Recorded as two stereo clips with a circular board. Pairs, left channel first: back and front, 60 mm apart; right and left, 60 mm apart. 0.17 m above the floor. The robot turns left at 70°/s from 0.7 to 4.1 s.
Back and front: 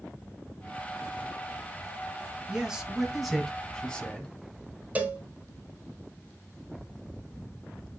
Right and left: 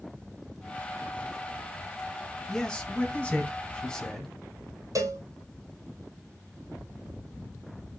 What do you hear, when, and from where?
2.5 s a man speaking: 40° right, 1.2 m; by 4.3 s 150° right, 1.2 m
5.0 s a cowbell: 65° left, 1.0 m